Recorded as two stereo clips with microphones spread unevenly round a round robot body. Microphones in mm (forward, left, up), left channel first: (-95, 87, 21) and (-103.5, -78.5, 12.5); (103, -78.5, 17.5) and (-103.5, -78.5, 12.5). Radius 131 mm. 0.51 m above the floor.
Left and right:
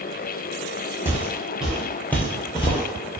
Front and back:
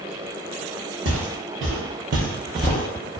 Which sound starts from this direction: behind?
Footsteps, at 1.1 s.